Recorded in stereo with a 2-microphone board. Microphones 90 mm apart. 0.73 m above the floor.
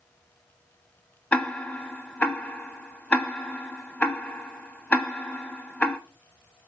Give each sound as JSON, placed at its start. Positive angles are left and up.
{"t": 1.3, "sound": "ticking", "side_deg": 15, "distance_m": 1.0}